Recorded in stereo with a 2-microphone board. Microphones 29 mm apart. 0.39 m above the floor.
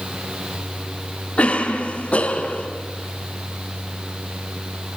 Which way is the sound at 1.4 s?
50° left (ahead or behind).